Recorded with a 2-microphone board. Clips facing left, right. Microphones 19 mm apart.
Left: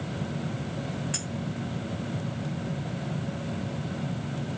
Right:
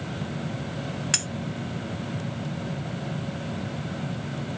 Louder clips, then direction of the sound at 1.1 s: Right 8 dB; 80° right.